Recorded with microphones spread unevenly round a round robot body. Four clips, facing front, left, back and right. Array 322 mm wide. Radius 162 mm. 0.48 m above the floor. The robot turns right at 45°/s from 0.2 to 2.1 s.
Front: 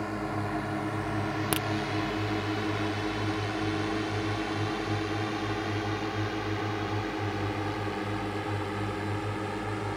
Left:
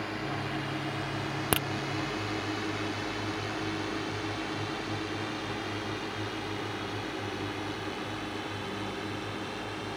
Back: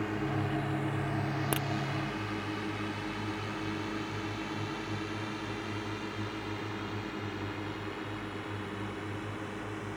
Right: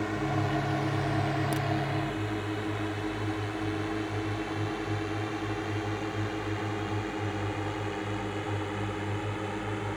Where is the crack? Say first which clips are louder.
Even, front 3 dB; 90° left; by 1.7 s 95° left.